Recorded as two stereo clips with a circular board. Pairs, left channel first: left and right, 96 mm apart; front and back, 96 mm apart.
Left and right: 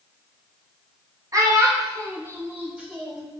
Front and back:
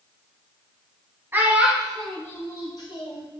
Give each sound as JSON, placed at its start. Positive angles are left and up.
{"t": 1.3, "sound": "a child speaking", "azimuth_deg": -120, "distance_m": 0.7}